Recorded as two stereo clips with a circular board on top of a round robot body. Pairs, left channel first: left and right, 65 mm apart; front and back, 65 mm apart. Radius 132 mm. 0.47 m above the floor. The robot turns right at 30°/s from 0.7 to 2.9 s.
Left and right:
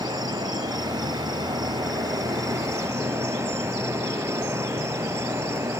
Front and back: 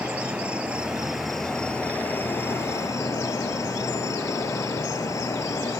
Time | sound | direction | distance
0.0 | an insect | 110° right | ?